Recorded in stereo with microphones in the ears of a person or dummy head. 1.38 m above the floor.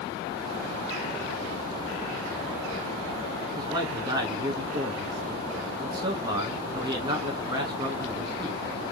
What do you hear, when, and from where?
3.6 s a man speaking: 20° right (ahead or behind), 1.8 m